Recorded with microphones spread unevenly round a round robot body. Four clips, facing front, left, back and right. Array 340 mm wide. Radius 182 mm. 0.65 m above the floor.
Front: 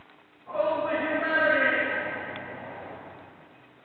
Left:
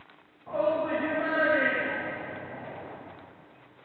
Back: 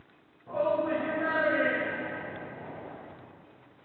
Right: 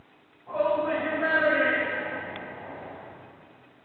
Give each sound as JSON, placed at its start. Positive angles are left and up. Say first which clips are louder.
{"t": 0.5, "sound": "a shout", "louder": "right 2 dB, front 1 dB", "azimuth_deg": 130, "distance_m": 4.5}